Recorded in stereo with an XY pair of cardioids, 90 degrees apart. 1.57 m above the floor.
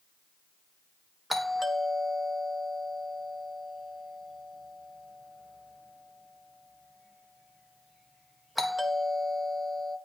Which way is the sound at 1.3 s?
5° right.